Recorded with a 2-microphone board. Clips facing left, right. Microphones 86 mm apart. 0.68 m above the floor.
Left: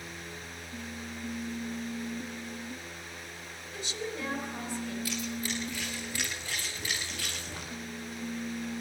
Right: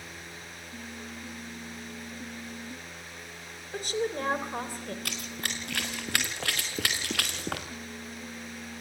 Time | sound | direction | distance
3.7 | a woman speaking | 50° right (ahead or behind) | 3.5 m
5.0 | running footsteps | 65° right (ahead or behind) | 3.5 m